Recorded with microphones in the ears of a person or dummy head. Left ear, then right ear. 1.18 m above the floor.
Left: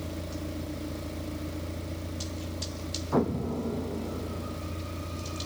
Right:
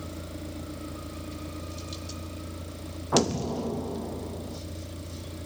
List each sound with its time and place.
0.0 s a vehicle: 5° right (ahead or behind)
3.1 s an explosion: 30° right (ahead or behind)